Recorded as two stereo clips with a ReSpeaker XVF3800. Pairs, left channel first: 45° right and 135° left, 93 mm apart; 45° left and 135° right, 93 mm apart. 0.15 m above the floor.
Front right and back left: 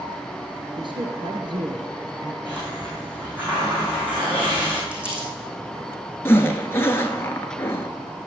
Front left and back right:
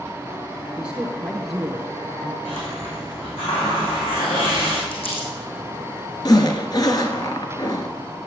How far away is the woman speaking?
About 2.5 m.